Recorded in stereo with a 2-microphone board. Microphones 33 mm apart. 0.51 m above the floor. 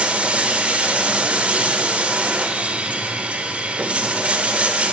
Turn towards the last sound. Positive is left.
turn(degrees=-50)  # may be behind; listen again after turning